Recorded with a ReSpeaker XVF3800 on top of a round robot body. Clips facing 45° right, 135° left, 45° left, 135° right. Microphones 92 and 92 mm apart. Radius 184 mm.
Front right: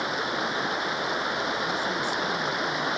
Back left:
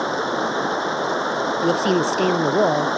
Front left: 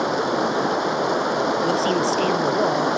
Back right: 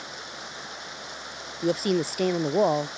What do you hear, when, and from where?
0.0 s running water: 75° left
1.6 s a woman speaking: 145° left